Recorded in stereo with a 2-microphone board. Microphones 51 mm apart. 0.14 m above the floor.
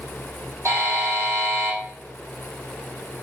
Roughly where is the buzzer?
Right.